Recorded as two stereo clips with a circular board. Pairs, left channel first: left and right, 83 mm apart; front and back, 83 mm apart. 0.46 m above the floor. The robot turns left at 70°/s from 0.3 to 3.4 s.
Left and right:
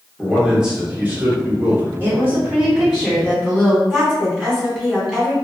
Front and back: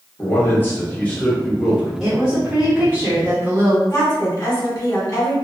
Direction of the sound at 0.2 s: Straight ahead.